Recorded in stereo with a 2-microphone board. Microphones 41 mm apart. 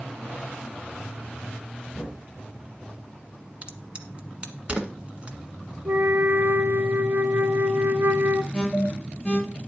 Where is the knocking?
25° left (ahead or behind), 5 m.